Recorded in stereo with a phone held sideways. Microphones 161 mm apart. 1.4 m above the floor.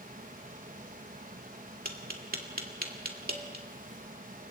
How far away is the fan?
About 1.0 m.